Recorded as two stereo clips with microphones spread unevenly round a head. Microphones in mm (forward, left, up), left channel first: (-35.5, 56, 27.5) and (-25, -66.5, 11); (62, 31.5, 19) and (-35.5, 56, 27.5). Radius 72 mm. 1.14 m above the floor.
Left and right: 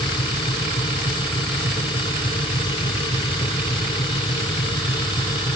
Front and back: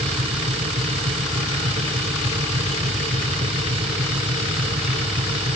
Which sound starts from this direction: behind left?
A machine running, at 0.0 s.